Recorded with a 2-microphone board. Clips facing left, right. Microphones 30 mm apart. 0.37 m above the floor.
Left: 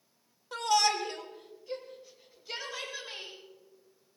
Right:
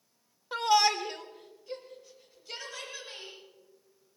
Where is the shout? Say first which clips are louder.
Right 2 dB; 25° right (ahead or behind), 1.1 m; by 3.4 s 20° left (ahead or behind), 2.5 m.